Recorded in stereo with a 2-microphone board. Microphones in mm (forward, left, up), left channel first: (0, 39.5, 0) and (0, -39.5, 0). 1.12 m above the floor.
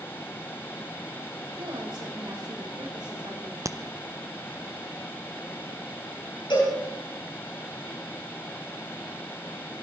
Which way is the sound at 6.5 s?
80° left.